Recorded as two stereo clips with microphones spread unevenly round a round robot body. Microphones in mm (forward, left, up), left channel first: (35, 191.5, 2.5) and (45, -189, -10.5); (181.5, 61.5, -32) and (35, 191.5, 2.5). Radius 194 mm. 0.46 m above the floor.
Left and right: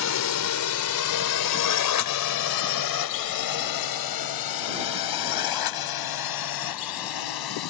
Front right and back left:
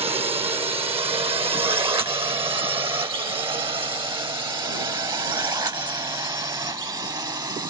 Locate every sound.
0.0 s a drone: 85° left; by 7.7 s 70° left